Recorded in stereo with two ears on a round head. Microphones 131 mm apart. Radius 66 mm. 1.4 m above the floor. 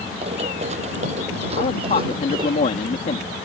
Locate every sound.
0.2 s running footsteps: 40° right (ahead or behind); by 2.6 s 35° right (ahead or behind)
1.6 s a man speaking: 50° left (ahead or behind)